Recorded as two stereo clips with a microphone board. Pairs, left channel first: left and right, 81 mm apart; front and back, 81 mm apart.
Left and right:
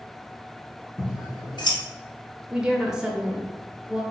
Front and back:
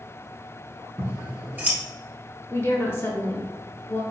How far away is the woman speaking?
About 1.0 m.